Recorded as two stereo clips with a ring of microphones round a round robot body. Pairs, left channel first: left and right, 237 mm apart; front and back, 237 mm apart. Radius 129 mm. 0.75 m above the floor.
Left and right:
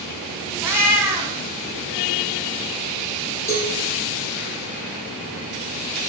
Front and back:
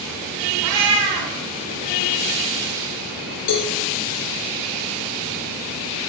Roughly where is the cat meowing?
Behind.